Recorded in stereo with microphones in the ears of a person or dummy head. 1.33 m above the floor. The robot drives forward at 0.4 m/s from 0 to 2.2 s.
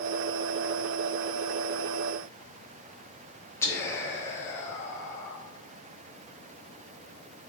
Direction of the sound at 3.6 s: 10° left (ahead or behind).